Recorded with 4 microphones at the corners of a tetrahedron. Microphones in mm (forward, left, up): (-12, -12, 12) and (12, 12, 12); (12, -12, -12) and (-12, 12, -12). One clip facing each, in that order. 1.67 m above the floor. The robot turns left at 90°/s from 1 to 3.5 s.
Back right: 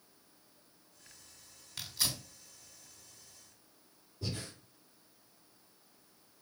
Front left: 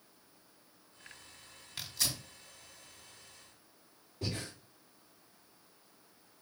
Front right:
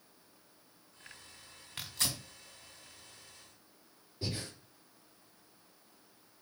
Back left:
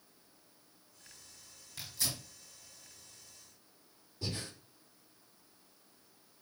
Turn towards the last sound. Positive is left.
turn(degrees=20)